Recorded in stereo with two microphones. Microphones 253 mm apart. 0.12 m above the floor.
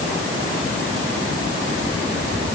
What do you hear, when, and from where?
Only background noise.